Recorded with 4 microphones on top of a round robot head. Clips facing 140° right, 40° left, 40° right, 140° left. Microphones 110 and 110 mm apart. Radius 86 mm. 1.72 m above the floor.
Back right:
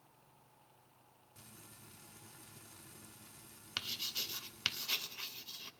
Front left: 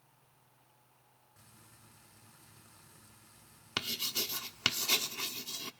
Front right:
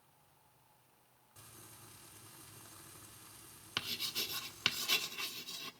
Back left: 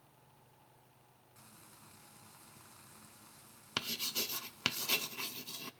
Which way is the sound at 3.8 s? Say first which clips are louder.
Front left 9 dB, back left 3 dB; 85° left.